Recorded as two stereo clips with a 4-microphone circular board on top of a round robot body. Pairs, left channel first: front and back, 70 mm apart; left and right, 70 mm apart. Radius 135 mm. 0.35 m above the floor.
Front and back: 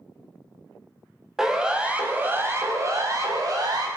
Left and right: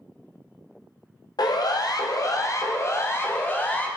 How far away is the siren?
About 3.5 m.